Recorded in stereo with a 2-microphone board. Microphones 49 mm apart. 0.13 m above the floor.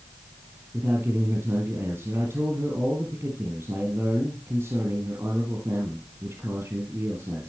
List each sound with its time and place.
0.7 s a man speaking: 65° right (ahead or behind), 3.5 m